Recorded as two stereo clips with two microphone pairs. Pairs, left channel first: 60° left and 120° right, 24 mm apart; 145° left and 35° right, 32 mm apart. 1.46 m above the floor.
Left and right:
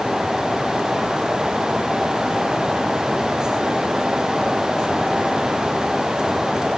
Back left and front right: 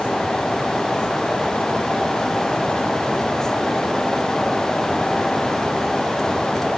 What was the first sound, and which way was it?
Only background noise.